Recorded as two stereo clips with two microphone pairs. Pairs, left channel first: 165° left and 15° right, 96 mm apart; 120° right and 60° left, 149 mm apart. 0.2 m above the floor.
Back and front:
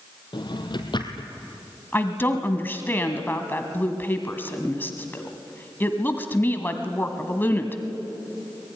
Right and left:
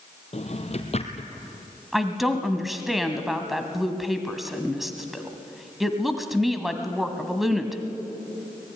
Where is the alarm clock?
I don't hear an alarm clock.